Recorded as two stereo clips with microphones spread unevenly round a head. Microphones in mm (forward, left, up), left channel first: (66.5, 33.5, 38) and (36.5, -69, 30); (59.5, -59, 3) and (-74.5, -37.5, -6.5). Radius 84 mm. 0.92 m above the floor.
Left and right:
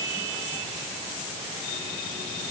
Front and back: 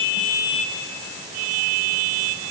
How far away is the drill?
I don't hear a drill.